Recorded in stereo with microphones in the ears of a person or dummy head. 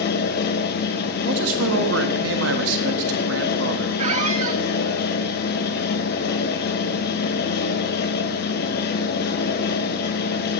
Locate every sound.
0.0 s a fan: 60° left (ahead or behind), 1.1 m
1.2 s a man speaking: 80° right, 1.3 m
4.0 s a squeak: 40° right (ahead or behind), 0.9 m